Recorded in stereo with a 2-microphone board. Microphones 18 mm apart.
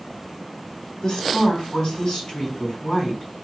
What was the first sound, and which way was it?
A woman speaking, 70° left (ahead or behind).